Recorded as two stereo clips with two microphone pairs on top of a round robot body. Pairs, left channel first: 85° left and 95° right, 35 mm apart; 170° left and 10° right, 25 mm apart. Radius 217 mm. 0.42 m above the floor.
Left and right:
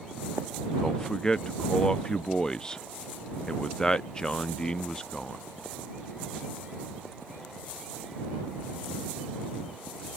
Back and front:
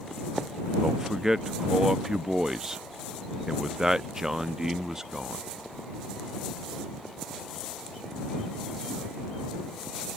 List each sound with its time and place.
0.8 s a man speaking: 55° left